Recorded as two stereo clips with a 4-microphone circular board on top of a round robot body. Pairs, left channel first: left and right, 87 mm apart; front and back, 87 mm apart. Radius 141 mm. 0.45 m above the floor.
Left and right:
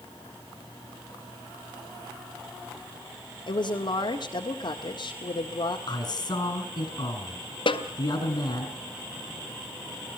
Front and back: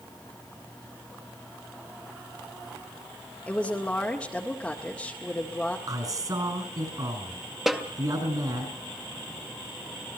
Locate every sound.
3.5 s a woman speaking: 80° left, 1.9 m
5.9 s a man speaking: 130° left, 5 m
7.7 s a snare drum: 95° left, 2.0 m